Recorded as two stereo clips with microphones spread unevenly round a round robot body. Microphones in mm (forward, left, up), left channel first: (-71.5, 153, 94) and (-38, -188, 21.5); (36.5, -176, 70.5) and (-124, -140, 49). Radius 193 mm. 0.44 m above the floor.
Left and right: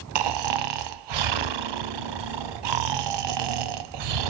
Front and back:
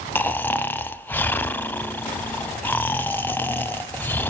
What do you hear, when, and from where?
0.1 s snoring: 95° right, 0.9 m